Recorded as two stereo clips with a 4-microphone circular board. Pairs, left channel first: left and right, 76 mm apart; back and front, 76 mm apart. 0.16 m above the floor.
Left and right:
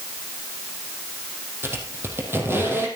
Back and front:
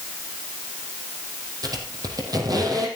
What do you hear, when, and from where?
1.6 s a squeak: 30° right, 4 m